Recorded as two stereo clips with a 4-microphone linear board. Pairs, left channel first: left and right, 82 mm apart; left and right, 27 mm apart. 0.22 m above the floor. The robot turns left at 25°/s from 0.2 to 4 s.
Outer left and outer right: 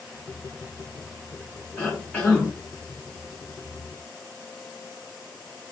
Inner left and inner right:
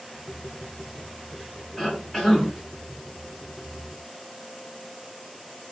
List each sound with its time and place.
1.8 s a cough: 20° left (ahead or behind), 1.5 m; by 2.5 s 15° left (ahead or behind), 1.5 m